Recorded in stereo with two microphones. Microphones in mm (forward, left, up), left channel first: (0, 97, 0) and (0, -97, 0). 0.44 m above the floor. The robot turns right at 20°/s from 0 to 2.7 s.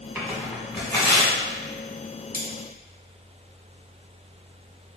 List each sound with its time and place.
0.1 s tearing paper: 5° left (ahead or behind), 1.2 m; by 1.3 s 30° left (ahead or behind), 1.2 m
2.3 s cutlery clinking: 50° left (ahead or behind), 0.9 m